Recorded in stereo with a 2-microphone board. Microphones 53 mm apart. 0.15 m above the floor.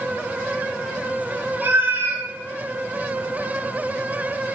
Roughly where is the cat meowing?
Right.